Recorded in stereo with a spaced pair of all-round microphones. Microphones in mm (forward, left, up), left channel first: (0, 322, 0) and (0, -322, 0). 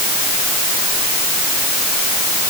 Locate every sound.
Only background noise.